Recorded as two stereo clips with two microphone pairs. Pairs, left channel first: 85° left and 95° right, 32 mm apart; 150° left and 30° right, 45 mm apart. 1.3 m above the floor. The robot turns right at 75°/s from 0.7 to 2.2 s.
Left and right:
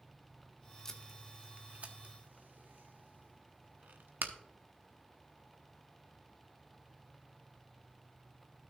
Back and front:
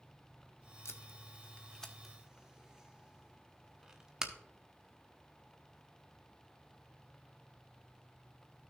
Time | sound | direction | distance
0.8 | tape being pulled | 155° left | 0.9 m